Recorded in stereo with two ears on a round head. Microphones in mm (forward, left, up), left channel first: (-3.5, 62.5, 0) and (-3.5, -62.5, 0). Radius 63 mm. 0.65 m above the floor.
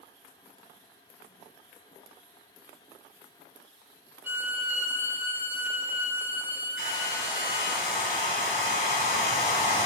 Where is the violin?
15° right (ahead or behind), 3 m.